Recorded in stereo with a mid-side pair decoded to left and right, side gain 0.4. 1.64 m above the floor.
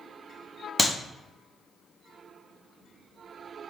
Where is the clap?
25° left, 0.5 m.